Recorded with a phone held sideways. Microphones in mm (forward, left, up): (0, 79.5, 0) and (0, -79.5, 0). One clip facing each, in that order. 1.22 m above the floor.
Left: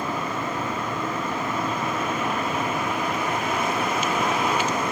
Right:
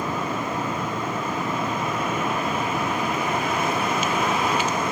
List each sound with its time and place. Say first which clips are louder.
0.0 s a fan: right 1 dB; 15° right (ahead or behind), 3.5 m